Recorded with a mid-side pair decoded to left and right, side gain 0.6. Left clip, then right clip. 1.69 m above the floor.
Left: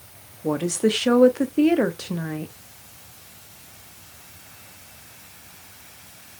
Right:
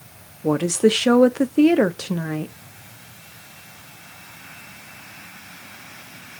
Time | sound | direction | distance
0.4 | a woman speaking | 20° right | 0.8 m